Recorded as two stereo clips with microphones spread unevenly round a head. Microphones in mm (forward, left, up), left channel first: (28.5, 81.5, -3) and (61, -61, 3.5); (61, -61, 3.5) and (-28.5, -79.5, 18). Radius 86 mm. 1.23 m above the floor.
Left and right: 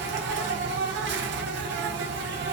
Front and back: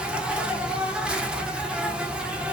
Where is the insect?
85° right, 0.7 m.